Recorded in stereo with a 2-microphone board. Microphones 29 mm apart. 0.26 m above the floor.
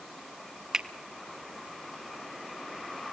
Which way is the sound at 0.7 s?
25° right (ahead or behind).